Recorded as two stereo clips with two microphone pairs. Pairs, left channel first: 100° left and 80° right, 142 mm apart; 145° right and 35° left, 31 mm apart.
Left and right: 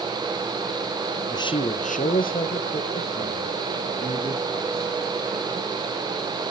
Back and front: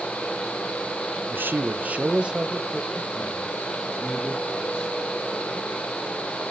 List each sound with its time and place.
1.3 s a man speaking: 35° left, 0.6 m; by 4.9 s 125° left, 3 m